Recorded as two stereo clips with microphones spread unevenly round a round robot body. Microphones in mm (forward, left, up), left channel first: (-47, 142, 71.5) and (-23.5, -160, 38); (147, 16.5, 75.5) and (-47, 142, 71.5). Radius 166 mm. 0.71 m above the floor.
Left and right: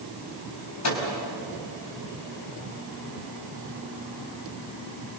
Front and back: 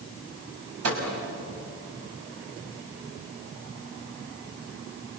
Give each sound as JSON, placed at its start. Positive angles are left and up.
{"t": 0.8, "sound": "a microwave", "azimuth_deg": 130, "distance_m": 5.0}